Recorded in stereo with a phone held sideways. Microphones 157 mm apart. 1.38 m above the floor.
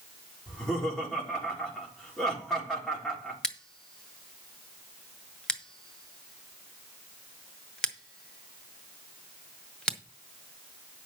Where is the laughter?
5° left (ahead or behind), 3.5 m.